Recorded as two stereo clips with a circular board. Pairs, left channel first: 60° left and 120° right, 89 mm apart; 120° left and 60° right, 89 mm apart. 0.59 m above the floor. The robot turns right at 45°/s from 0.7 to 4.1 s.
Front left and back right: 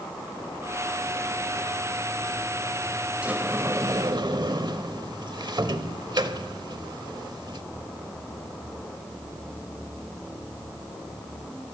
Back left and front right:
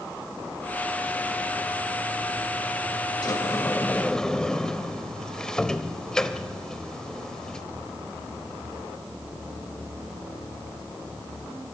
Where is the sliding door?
160° left, 0.8 m; by 7.6 s 160° right, 0.8 m.